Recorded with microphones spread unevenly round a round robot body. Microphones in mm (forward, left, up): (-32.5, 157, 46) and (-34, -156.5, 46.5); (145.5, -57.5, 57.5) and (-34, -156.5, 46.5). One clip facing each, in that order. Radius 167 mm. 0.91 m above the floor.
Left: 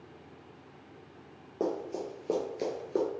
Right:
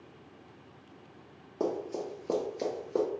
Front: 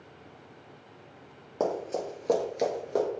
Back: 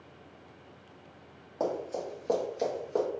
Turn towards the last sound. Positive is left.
turn(degrees=0)